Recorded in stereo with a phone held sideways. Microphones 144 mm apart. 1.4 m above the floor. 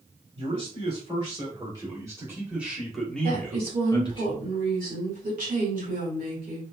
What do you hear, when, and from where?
0.4 s a man speaking: 45° right (ahead or behind), 2 m; by 4.2 s 35° left (ahead or behind), 1.3 m
3.2 s a woman speaking: 75° right (ahead or behind), 2 m